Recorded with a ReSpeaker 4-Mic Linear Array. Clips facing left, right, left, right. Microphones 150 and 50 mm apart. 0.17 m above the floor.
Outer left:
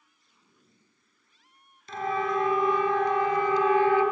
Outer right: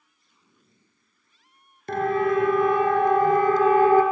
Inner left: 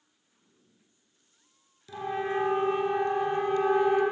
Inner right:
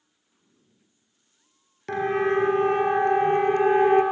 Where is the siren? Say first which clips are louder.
Outer right 6 dB, inner right 8 dB; 60° right (ahead or behind), 2.5 m; by 4.0 s 45° right (ahead or behind), 3 m.